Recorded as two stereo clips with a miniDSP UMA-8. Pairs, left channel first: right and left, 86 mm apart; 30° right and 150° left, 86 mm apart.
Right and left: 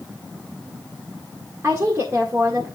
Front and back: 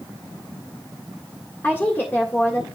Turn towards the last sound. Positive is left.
turn(degrees=35)